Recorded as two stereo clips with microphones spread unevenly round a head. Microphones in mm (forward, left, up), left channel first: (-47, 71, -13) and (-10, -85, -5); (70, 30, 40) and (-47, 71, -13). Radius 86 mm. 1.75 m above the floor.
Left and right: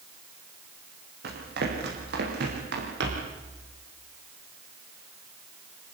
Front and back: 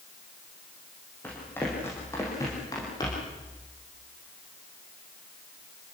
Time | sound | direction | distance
1.2 | running footsteps | 90° right | 5.5 m